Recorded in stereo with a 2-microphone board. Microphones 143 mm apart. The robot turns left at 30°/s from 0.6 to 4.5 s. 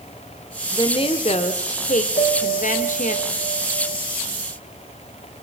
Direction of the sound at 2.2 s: 110° left.